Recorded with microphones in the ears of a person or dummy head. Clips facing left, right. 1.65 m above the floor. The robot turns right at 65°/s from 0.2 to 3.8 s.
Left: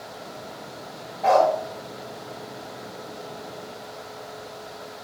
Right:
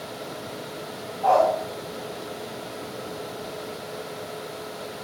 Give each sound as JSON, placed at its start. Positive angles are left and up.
{"t": 1.2, "sound": "a dog barking", "side_deg": 30, "distance_m": 2.0}